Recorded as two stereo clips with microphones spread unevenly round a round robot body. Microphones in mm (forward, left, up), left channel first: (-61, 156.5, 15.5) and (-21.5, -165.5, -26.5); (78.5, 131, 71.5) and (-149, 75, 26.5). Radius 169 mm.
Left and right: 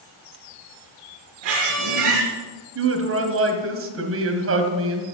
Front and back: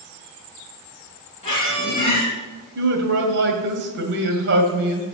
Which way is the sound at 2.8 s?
130° right.